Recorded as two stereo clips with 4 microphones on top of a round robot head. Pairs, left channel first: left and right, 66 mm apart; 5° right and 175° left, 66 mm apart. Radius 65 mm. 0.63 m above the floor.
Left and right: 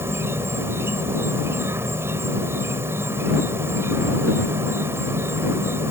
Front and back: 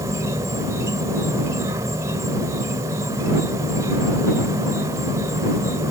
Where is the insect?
140° right.